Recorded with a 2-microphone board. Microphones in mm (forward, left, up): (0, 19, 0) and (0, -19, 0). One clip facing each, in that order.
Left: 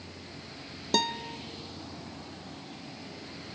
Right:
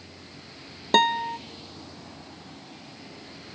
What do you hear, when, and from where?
0.9 s a guitar: 45° right (ahead or behind), 0.7 m